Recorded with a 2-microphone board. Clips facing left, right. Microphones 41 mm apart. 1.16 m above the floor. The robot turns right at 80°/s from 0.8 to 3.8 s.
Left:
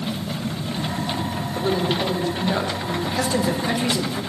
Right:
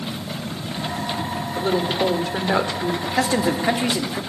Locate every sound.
1.6 s a woman speaking: 175° right, 3 m; by 2.9 s 65° right, 3 m
3.0 s a man speaking: 95° right, 3 m; by 4.2 s 30° right, 3 m